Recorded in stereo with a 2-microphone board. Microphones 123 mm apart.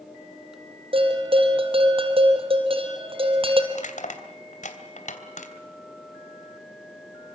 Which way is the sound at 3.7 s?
70° left (ahead or behind).